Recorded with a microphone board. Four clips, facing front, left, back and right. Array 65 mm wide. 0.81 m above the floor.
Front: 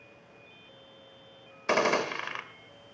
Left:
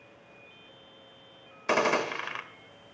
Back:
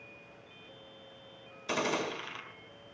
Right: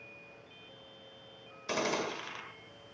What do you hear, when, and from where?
1.7 s a gunshot: 40° left, 1.8 m